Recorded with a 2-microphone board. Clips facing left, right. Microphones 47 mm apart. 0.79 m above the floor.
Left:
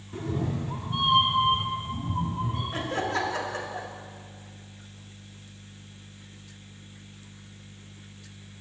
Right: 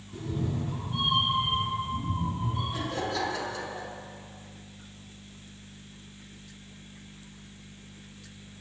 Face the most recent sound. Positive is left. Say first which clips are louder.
# left 6 dB
turn(degrees=50)  # may be behind; listen again after turning